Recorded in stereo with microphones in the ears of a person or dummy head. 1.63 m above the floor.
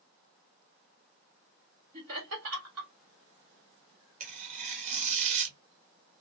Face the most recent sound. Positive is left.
turn(degrees=-40)  # may be behind; listen again after turning